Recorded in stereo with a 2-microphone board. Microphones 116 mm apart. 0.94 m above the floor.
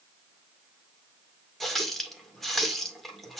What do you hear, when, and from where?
1.6 s a running tap: centre (ahead or behind), 1.8 m